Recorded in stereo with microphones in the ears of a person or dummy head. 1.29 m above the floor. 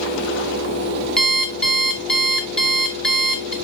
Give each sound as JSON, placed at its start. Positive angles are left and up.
{"t": 1.2, "sound": "an alarm clock", "side_deg": 5, "distance_m": 0.8}